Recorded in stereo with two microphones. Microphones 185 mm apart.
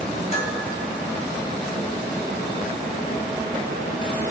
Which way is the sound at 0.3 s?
35° left (ahead or behind).